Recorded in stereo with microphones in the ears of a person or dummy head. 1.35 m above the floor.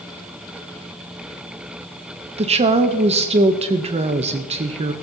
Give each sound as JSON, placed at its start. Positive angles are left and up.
{"t": 2.4, "sound": "a woman speaking", "side_deg": -30, "distance_m": 0.7}